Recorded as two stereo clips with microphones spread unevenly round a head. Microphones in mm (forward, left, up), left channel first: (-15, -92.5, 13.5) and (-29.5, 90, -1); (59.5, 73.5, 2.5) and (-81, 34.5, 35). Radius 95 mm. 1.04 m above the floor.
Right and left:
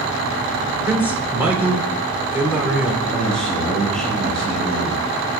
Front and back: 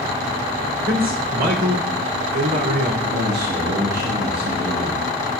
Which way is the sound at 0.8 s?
175° left.